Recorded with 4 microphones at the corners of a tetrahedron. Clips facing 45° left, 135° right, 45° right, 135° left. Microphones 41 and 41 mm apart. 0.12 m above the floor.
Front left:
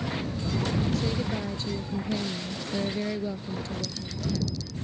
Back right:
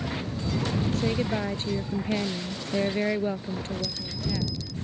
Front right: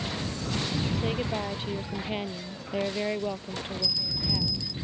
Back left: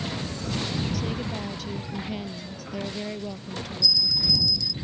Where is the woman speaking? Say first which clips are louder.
Back right 2 dB, front right 1 dB; 100° right.